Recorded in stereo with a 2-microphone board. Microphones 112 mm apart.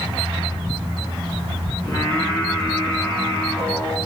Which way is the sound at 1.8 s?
35° left (ahead or behind).